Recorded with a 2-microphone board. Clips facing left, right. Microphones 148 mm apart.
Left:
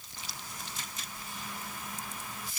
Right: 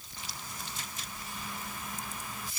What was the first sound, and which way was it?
Only background noise.